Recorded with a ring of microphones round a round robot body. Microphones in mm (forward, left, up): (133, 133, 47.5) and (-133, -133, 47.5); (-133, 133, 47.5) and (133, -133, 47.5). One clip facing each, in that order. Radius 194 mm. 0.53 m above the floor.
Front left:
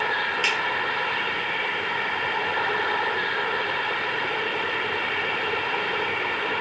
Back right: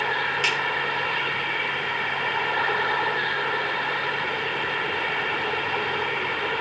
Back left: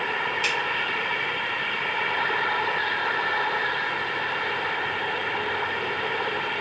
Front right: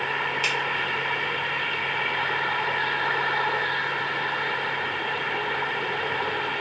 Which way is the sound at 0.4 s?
75° right.